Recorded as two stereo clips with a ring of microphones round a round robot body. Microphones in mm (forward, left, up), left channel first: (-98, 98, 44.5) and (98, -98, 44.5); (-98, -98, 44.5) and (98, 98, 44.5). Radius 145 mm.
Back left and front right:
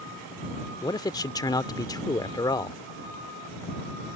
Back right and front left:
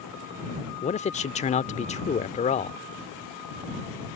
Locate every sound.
0.8 s a man speaking: 165° right